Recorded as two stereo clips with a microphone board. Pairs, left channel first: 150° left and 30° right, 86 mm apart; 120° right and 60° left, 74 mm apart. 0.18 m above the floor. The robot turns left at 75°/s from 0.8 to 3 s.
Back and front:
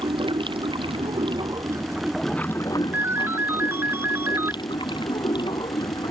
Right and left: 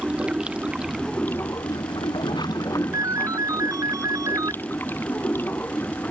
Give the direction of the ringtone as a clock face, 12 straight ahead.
11 o'clock.